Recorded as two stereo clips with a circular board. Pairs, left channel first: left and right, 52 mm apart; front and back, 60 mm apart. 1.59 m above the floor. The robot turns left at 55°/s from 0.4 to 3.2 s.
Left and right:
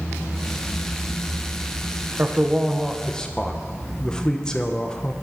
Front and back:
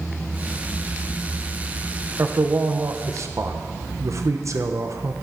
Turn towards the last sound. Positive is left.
turn(degrees=165)